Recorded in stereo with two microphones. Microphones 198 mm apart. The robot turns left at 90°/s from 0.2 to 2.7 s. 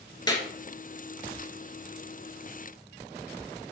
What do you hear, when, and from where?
0.3 s a clap: 20° left (ahead or behind), 1.9 m; by 0.5 s 10° left (ahead or behind), 1.9 m